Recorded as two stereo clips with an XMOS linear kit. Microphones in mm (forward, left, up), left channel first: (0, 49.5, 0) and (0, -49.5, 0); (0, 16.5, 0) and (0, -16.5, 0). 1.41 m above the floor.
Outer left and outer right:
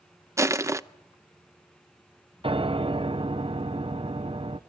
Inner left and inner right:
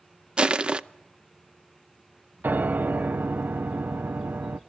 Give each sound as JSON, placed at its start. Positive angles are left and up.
{"t": 0.4, "sound": "crushing", "side_deg": -30, "distance_m": 0.6}
{"t": 2.4, "sound": "a piano", "side_deg": -70, "distance_m": 0.8}